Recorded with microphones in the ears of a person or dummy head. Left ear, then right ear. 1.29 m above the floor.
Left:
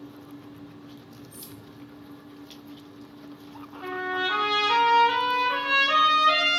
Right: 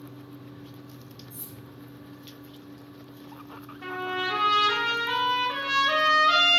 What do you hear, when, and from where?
0.0 s a fan: 15° right (ahead or behind), 0.7 m
1.3 s cutlery clinking: 30° right (ahead or behind), 1.3 m
3.8 s a trumpet: 35° right (ahead or behind), 0.7 m